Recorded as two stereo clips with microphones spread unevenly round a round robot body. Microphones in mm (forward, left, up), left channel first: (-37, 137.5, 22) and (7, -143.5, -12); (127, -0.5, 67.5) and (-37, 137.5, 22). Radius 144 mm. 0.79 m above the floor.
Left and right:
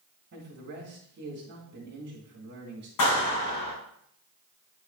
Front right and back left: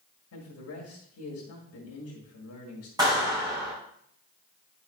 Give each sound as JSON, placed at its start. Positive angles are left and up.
{"t": 0.3, "sound": "a man speaking", "azimuth_deg": -35, "distance_m": 1.9}
{"t": 3.0, "sound": "a clap", "azimuth_deg": 65, "distance_m": 4.5}